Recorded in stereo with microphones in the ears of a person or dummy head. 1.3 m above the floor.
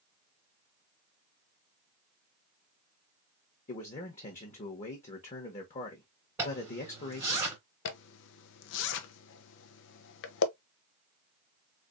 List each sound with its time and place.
3.7 s a man speaking: 35° left (ahead or behind), 0.9 m
6.4 s a zipper: 10° right (ahead or behind), 3 m
7.8 s a zipper: 70° left (ahead or behind), 0.6 m